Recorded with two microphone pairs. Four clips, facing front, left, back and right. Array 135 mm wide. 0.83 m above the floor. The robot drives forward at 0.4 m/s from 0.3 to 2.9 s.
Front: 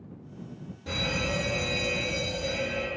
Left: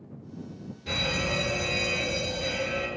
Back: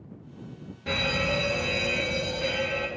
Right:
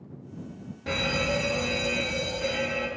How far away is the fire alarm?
About 2 m.